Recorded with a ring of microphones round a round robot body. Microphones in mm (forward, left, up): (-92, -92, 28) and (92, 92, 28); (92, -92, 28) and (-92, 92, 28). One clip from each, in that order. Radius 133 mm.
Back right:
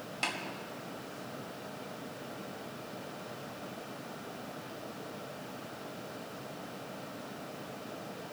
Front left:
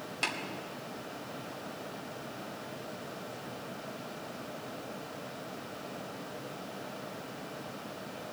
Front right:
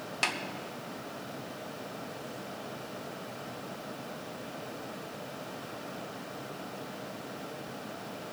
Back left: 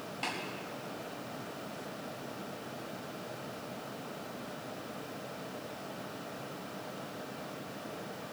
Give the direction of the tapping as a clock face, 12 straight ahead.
1 o'clock.